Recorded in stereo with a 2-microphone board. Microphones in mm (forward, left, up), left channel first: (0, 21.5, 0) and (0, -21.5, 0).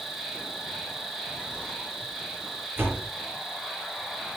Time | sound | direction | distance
0.0 | an insect | centre (ahead or behind) | 8 m
2.8 | a door slam | 55° right (ahead or behind) | 7 m